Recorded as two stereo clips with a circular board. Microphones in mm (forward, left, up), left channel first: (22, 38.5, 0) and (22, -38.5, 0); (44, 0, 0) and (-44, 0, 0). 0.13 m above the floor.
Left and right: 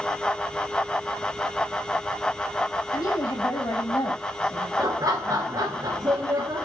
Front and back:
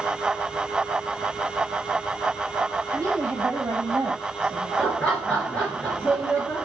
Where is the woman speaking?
125° left, 4 m.